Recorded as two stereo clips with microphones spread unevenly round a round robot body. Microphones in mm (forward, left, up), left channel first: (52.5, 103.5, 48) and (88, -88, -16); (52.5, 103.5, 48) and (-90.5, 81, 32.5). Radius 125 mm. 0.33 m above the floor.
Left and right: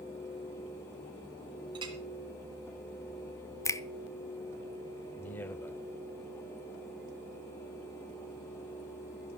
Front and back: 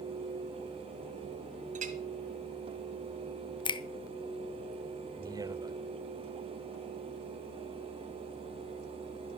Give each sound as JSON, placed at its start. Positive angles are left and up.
{"t": 1.8, "sound": "a clink", "azimuth_deg": -140, "distance_m": 1.3}
{"t": 3.6, "sound": "a finger snap", "azimuth_deg": 5, "distance_m": 0.8}
{"t": 5.2, "sound": "a man speaking", "azimuth_deg": -155, "distance_m": 1.0}